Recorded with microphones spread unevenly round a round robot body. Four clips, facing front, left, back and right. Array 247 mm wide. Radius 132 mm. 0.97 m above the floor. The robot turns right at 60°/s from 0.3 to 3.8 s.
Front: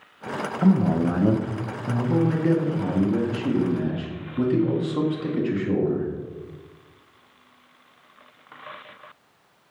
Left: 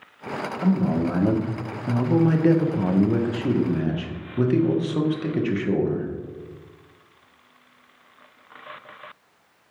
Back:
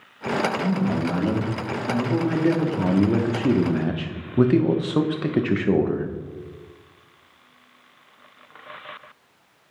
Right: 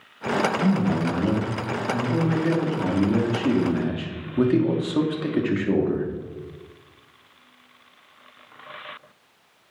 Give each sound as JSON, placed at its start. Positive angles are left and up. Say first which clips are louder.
{"t": 0.6, "sound": "a man speaking", "louder": "even, front 3 dB", "azimuth_deg": -5, "distance_m": 1.0}